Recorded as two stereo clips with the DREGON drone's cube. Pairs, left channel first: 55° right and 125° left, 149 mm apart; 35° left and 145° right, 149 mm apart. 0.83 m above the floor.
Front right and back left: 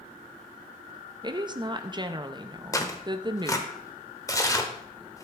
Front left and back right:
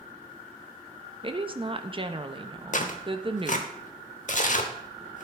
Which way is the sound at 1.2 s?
175° left.